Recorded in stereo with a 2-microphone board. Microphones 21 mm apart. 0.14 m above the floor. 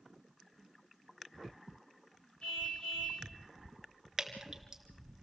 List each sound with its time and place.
2.4 s a car horn: 60° left (ahead or behind), 7.5 m
4.2 s dripping: 20° right (ahead or behind), 2 m